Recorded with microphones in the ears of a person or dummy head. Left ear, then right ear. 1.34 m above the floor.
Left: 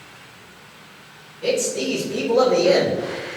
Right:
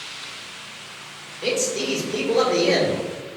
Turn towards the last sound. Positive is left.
turn(degrees=-75)  # may be behind; listen again after turning